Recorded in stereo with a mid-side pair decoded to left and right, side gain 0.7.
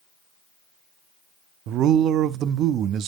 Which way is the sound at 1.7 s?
50° right.